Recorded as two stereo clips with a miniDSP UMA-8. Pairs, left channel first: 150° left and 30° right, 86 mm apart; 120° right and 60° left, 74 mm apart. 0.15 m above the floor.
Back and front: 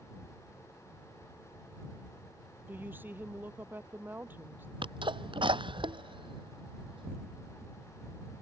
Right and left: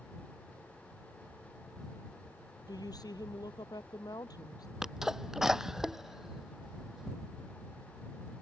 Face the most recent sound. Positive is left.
turn(degrees=-25)